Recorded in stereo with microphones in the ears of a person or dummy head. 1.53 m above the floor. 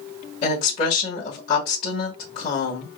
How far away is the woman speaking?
About 1.4 m.